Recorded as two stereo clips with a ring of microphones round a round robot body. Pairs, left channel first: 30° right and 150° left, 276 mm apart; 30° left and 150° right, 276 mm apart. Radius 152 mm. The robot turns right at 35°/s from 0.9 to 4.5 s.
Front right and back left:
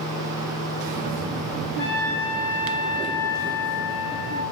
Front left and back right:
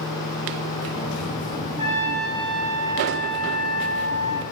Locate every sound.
1.8 s a trumpet: 80° right, 6 m; by 4.4 s 10° left, 6 m